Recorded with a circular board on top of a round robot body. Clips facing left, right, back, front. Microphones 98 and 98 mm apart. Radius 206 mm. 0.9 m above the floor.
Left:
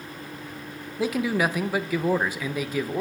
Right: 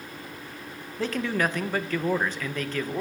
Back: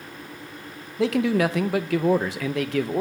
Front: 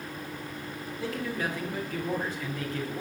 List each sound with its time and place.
1.0 s a man speaking: 170° left, 0.7 m